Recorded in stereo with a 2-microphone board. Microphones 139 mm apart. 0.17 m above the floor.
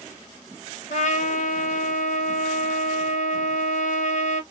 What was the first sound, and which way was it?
A trumpet, 60° left (ahead or behind).